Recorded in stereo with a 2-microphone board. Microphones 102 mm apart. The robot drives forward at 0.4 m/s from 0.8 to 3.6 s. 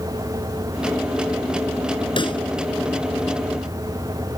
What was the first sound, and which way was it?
A pop, 50° left (ahead or behind).